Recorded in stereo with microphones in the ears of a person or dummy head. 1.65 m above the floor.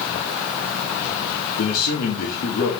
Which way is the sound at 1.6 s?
65° left (ahead or behind).